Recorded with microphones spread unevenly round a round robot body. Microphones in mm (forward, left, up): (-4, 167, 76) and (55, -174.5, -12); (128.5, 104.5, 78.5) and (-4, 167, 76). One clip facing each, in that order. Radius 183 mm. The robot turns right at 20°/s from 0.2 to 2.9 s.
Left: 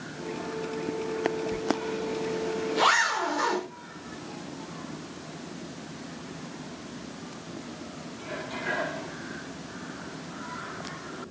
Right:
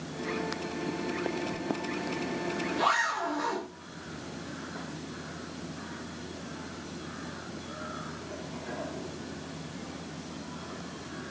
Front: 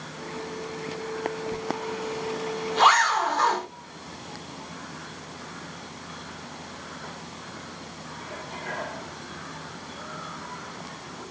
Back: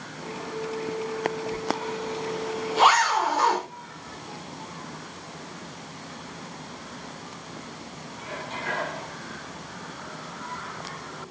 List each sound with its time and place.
1.5 s a zipper: 45° left, 0.7 m; by 3.7 s 75° left, 0.7 m